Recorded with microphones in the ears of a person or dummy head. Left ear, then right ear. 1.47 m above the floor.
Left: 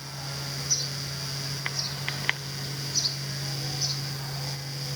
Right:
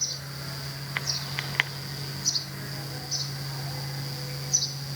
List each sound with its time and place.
Only background noise.